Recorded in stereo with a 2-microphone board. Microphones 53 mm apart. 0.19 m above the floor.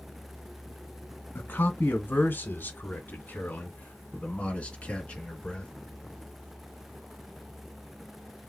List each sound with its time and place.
1.4 s a man speaking: 40° left (ahead or behind), 1.8 m; by 5.7 s 15° left (ahead or behind), 3 m